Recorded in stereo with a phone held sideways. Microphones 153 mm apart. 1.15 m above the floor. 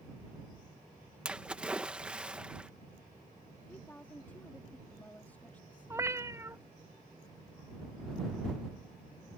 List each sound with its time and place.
1.2 s a splash: 5° right (ahead or behind)
3.7 s a woman speaking: 10° left (ahead or behind)
5.9 s a cat meowing: 20° right (ahead or behind)